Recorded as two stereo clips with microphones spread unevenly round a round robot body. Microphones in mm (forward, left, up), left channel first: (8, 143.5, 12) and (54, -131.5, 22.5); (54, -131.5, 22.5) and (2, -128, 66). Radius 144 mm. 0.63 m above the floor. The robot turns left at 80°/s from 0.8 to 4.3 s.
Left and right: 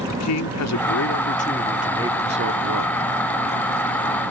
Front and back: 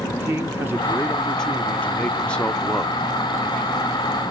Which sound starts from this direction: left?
A man speaking, at 0.1 s.